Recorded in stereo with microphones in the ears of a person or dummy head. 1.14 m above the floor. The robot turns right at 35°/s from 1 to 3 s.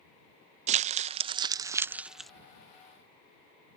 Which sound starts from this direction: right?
Crumpling, at 0.7 s.